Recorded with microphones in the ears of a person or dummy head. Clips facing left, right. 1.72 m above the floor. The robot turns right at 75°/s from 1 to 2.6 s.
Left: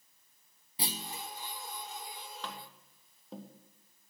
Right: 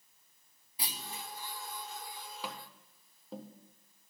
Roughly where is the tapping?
Centre.